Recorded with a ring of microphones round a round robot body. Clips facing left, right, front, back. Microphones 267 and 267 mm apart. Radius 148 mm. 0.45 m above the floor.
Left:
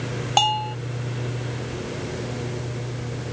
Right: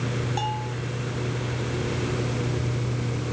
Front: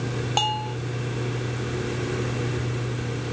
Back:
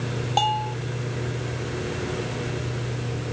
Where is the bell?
80° left.